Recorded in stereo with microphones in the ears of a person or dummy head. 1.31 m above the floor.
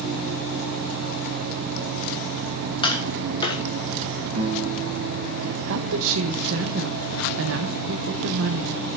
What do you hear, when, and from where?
2.8 s tapping: 25° left (ahead or behind), 1.4 m
4.3 s a guitar: 40° right (ahead or behind), 1.4 m
5.7 s a woman speaking: 75° right (ahead or behind), 0.8 m